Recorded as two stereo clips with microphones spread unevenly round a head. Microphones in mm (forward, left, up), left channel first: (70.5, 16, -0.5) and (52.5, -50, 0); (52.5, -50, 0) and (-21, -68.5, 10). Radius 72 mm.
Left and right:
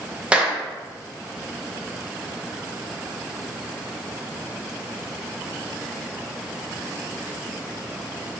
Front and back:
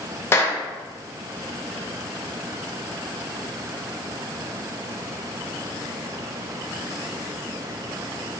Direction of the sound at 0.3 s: 30° right.